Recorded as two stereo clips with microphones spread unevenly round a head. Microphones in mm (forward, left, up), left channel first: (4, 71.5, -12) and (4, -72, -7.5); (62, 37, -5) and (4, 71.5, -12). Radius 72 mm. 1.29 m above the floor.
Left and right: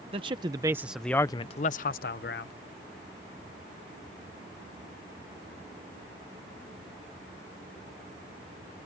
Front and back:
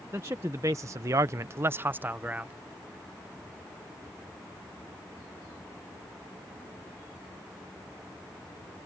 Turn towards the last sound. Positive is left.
turn(degrees=85)